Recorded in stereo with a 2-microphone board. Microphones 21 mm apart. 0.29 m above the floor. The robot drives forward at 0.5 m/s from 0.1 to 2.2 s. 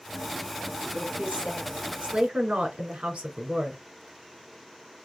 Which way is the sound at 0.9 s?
70° right (ahead or behind).